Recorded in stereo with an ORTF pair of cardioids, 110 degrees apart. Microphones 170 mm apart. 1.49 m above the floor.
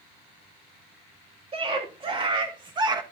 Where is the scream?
35° right, 3 m; by 3.0 s 25° right, 1.7 m.